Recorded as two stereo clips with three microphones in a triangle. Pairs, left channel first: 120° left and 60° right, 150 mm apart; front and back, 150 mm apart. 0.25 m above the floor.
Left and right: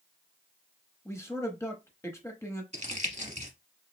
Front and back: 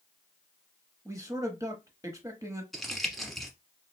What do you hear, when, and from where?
1.1 s a man speaking: 160° left, 1.0 m
2.7 s crumpling: 90° right, 1.0 m